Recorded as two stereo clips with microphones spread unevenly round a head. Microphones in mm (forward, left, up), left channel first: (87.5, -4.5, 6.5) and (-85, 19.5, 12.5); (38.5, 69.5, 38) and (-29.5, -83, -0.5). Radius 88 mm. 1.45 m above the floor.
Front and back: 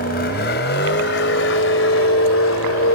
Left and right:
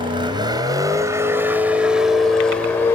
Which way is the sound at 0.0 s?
50° right.